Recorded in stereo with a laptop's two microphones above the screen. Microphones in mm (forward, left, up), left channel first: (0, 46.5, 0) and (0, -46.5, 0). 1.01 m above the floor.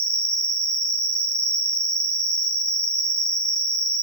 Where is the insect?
45° left (ahead or behind), 1.0 m.